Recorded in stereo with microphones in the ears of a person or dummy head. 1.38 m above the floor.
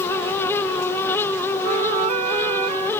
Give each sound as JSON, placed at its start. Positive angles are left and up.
{"t": 1.6, "sound": "a flute", "side_deg": -45}